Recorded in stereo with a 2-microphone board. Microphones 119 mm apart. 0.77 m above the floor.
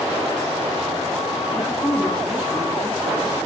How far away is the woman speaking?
About 4.5 m.